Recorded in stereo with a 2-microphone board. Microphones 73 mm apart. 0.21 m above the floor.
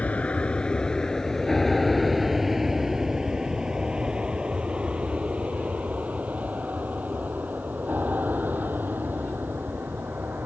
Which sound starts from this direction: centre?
An aircraft, at 0.0 s.